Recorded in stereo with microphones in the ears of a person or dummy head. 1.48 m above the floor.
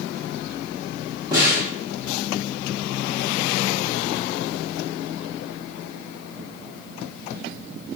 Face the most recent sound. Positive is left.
turn(degrees=-15)  # may be behind; listen again after turning